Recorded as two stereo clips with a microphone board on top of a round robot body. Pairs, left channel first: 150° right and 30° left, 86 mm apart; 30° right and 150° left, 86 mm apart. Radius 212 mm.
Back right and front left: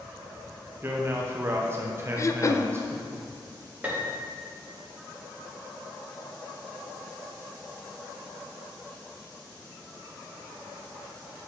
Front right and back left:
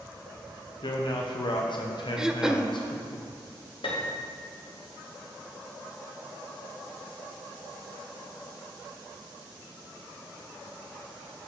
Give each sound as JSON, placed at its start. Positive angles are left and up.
{"t": 0.8, "sound": "a man speaking", "azimuth_deg": -25, "distance_m": 0.8}
{"t": 2.2, "sound": "throat clearing", "azimuth_deg": -135, "distance_m": 0.6}
{"t": 3.8, "sound": "a piano", "azimuth_deg": -40, "distance_m": 1.0}